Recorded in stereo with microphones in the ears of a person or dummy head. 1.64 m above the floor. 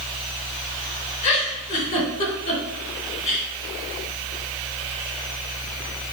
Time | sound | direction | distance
1.2 | a giggle | 35° left (ahead or behind) | 2 m